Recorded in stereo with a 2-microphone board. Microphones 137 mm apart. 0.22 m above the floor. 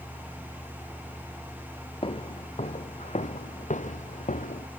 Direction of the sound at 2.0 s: 40° left (ahead or behind).